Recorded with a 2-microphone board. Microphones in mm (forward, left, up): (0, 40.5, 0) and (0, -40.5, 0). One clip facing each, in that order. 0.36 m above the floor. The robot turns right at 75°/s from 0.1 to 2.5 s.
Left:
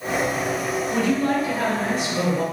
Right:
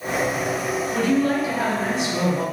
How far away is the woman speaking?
About 1.7 m.